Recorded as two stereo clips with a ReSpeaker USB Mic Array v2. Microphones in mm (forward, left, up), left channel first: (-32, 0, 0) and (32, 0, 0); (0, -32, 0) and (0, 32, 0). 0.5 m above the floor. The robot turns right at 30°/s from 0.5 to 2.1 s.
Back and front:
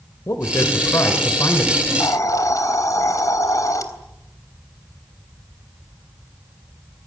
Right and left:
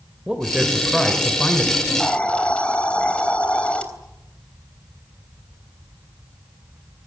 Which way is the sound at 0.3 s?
165° left.